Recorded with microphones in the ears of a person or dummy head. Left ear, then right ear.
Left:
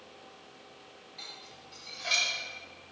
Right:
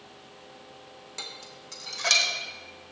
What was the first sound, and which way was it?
Dishes clattering, 50° right (ahead or behind).